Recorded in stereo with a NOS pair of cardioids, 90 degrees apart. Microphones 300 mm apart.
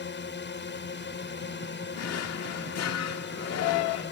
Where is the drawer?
60° left.